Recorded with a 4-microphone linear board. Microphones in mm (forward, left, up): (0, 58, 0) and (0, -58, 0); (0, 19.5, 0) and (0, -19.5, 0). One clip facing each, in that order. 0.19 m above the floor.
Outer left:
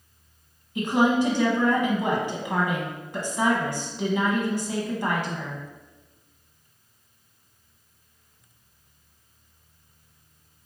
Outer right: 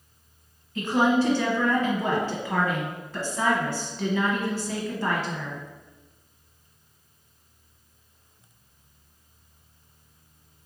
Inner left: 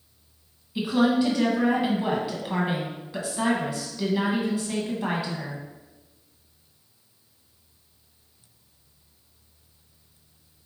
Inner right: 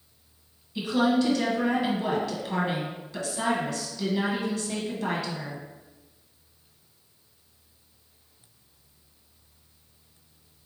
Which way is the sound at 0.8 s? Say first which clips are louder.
Outer left 1 dB, inner left 2 dB; 20° left (ahead or behind).